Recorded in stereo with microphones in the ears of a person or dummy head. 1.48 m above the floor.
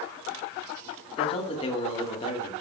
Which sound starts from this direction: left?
A man speaking, at 1.2 s.